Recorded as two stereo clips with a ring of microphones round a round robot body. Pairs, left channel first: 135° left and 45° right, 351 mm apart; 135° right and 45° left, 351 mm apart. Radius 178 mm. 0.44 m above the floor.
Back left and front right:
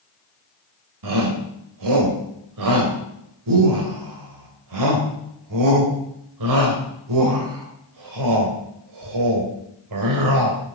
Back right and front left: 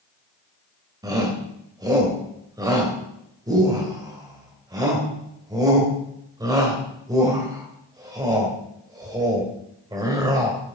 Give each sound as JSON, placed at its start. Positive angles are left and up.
{"t": 1.0, "sound": "a shout", "azimuth_deg": -35, "distance_m": 2.5}